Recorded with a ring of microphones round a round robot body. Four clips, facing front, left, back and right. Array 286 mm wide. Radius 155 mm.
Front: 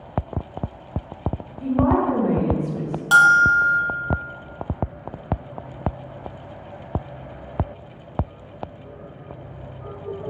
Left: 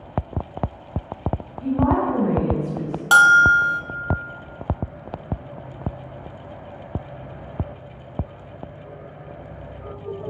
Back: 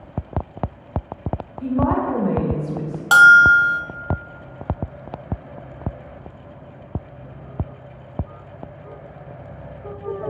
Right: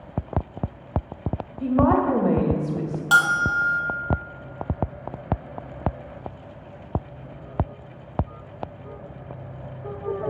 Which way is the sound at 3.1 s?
135° left.